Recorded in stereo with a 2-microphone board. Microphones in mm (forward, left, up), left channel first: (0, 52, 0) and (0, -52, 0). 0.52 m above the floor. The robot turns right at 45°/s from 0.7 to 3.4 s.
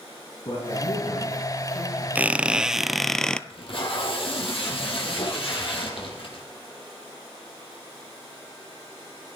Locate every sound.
0.5 s a man speaking: 70° left, 5.5 m; by 2.0 s 130° left, 5.5 m
2.1 s a squeak: 15° right (ahead or behind), 0.5 m; by 3.4 s 10° left (ahead or behind), 0.5 m
3.5 s tape being pulled: 60° left (ahead or behind), 4 m